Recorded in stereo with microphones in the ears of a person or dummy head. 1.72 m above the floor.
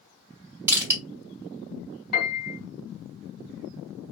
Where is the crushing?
15° right (ahead or behind), 1.4 m.